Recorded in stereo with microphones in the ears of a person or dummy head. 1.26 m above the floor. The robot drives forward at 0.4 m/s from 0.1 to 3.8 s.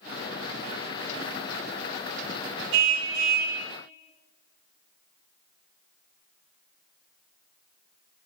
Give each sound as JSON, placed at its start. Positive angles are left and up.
{"t": 2.7, "sound": "a car horn", "side_deg": -60, "distance_m": 3.0}